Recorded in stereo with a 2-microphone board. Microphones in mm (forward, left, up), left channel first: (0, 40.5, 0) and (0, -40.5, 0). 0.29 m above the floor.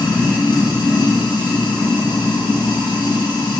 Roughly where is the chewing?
No chewing in this recording.